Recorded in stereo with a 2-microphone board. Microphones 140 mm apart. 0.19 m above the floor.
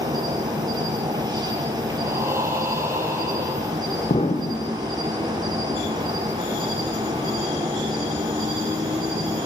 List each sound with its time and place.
0.0 s an insect: 30° right (ahead or behind), 5.5 m
2.0 s breathing: 20° right (ahead or behind), 6 m
4.1 s an explosion: 50° left (ahead or behind), 2.5 m